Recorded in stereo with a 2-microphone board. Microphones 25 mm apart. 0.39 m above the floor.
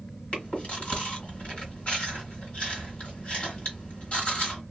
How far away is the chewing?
About 1.3 m.